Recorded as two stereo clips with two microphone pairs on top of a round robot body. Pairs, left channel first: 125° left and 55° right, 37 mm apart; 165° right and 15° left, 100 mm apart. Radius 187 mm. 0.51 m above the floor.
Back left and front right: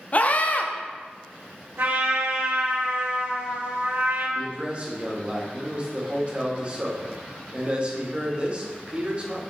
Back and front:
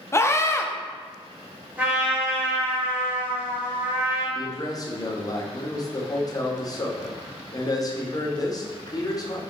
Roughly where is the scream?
Behind left.